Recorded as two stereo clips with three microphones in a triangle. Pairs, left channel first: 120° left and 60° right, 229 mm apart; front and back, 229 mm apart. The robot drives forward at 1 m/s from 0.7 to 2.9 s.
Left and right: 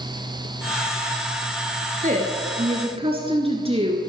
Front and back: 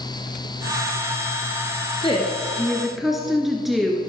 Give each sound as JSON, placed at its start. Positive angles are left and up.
{"t": 2.0, "sound": "a woman speaking", "azimuth_deg": -45, "distance_m": 1.8}